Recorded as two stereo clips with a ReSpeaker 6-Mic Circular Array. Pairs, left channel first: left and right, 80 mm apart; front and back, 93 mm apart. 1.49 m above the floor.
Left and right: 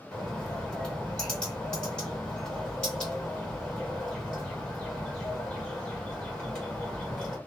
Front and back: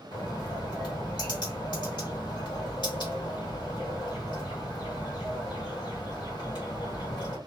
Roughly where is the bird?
Ahead.